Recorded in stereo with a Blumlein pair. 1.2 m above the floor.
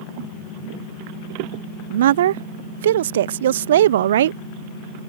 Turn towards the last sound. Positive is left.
turn(degrees=-60)